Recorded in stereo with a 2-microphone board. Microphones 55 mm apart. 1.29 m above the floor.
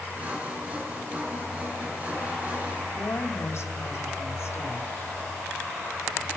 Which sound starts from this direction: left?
A woman speaking, at 2.9 s.